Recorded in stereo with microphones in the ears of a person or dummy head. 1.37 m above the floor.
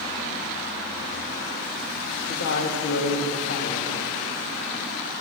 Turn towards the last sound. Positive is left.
turn(degrees=50)  # may be behind; listen again after turning